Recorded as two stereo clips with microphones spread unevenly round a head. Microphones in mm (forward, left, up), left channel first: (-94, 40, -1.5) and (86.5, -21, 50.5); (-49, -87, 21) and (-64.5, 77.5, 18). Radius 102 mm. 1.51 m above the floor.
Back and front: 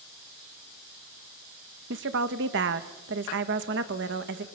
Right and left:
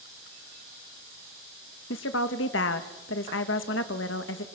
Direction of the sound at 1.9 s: 50° right.